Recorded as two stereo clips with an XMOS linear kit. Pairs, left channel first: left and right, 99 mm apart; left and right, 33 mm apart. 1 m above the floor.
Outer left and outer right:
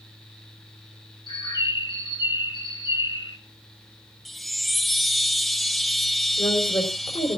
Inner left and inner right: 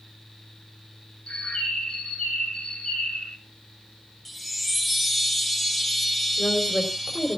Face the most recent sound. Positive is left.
turn(degrees=55)  # may be behind; listen again after turning